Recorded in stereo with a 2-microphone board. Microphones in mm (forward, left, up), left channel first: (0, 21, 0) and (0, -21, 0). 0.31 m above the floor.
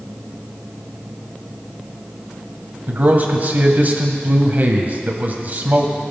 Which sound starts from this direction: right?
A man speaking, at 2.9 s.